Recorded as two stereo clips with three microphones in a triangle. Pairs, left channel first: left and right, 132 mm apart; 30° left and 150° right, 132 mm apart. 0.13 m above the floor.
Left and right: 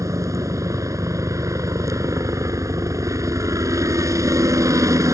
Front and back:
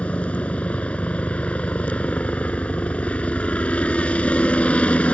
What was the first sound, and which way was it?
A helicopter, 45° right.